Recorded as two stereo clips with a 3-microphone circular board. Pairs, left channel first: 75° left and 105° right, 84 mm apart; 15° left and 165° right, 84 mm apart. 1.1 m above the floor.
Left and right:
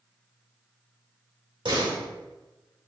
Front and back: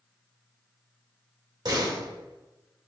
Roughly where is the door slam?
Behind right.